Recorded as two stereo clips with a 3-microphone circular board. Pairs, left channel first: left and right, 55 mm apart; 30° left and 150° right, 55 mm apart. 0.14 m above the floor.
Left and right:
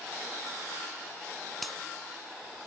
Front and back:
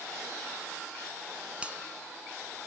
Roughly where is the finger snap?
Behind.